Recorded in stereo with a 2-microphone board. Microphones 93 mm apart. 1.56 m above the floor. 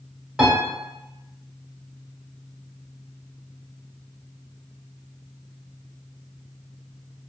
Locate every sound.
0.4 s a piano: 10° right (ahead or behind), 1.1 m